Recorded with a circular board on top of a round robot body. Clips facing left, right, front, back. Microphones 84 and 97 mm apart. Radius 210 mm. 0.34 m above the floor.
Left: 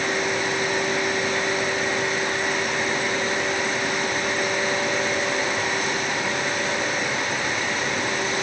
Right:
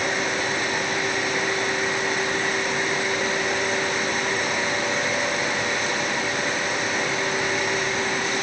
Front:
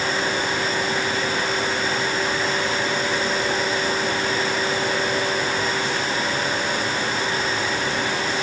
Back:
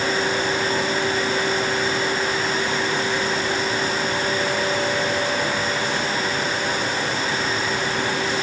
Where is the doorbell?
I don't hear a doorbell.